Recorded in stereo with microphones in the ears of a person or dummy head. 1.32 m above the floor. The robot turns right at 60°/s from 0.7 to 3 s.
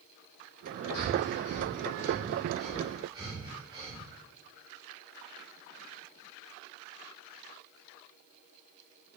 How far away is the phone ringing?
No phone ringing in this recording.